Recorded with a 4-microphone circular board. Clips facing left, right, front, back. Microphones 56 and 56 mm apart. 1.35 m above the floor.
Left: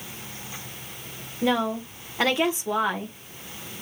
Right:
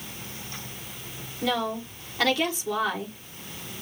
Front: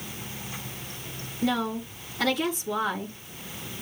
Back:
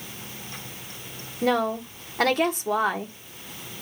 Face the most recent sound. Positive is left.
turn(degrees=160)